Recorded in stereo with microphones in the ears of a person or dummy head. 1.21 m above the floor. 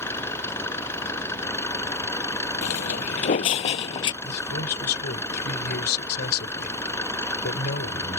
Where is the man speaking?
60° left (ahead or behind).